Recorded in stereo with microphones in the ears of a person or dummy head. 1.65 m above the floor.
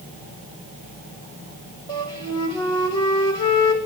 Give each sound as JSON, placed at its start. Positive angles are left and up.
{"t": 1.9, "sound": "a flute", "side_deg": 25, "distance_m": 6.5}